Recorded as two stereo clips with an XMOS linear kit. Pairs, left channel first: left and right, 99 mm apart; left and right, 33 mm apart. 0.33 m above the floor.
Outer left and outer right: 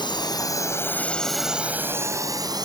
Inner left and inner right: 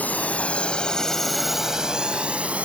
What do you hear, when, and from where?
0.0 s a drone: 50° left (ahead or behind); by 2.6 s 45° right (ahead or behind)